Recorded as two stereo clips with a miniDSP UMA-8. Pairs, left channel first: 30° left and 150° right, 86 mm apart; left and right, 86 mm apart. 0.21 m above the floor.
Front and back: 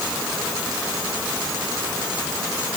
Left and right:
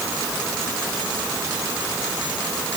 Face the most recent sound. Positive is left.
No sound to turn to.